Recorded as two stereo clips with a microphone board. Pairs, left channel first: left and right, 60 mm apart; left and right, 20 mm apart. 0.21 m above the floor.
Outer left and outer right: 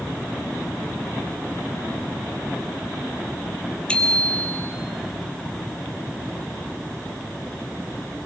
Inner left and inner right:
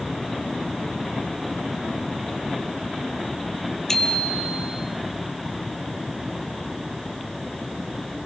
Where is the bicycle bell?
20° left (ahead or behind), 3.5 m.